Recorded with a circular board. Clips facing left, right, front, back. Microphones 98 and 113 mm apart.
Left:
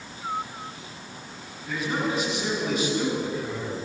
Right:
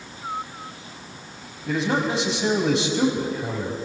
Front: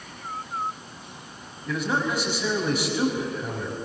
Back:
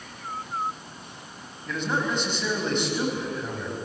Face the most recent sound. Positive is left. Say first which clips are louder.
# right 4 dB, front 1 dB
turn(degrees=-85)